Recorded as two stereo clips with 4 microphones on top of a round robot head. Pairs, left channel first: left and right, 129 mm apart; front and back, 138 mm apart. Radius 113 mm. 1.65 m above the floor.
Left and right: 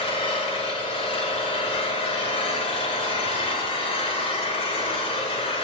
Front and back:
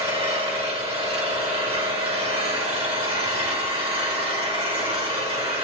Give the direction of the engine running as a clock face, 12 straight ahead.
8 o'clock.